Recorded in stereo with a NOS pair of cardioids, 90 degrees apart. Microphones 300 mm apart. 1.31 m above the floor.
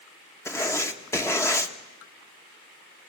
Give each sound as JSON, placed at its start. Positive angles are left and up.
{"t": 0.5, "sound": "writing", "azimuth_deg": 10, "distance_m": 1.4}